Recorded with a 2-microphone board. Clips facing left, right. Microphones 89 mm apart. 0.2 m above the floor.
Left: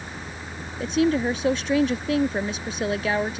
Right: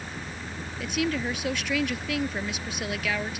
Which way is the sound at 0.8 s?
35° left (ahead or behind).